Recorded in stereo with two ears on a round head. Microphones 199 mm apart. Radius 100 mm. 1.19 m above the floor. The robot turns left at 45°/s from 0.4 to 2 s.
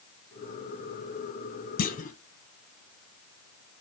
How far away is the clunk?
About 0.7 m.